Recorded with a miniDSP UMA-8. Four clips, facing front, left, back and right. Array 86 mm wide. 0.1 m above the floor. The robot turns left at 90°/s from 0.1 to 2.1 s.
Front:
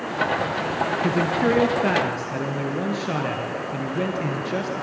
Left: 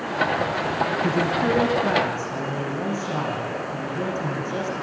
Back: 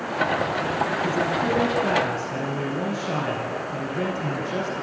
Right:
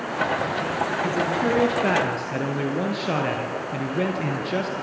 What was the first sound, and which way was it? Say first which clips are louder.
A man speaking: even, front 2 dB; 30° left.